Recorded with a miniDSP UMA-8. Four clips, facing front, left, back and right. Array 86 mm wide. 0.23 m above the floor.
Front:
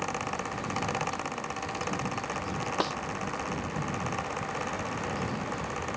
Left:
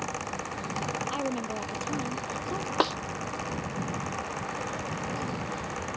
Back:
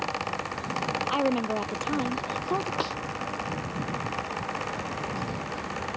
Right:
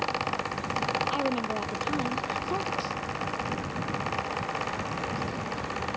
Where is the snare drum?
90° left.